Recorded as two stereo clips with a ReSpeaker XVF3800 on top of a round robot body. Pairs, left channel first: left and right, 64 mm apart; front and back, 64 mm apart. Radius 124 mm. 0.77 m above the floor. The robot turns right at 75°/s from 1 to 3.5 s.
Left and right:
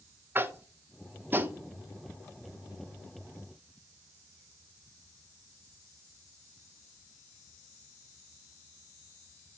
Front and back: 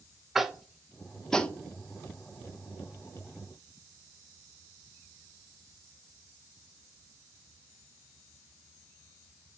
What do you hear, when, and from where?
0.3 s tapping: 100° right, 0.7 m; by 1.6 s 55° right, 0.7 m